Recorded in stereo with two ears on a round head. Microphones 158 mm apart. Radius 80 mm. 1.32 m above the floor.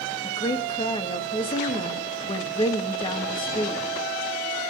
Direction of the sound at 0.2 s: 30° left (ahead or behind).